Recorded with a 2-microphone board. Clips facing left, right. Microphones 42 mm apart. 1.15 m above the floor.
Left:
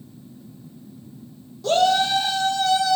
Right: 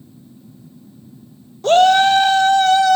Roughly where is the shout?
Right.